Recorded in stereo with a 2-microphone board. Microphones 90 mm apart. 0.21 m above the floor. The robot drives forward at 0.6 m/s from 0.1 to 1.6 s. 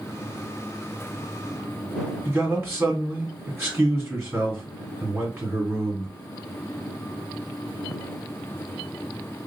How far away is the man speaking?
About 1.7 m.